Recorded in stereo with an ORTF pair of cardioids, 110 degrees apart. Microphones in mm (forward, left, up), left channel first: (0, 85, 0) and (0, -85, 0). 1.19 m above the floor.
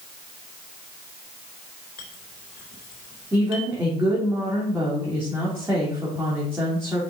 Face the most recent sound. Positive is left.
turn(degrees=-15)